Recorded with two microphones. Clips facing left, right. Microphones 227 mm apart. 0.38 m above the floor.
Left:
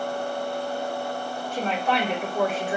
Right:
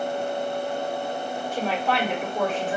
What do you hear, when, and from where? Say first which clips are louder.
1.5 s a woman speaking: even; 10° right (ahead or behind), 1.6 m; by 2.8 s 10° left (ahead or behind), 1.4 m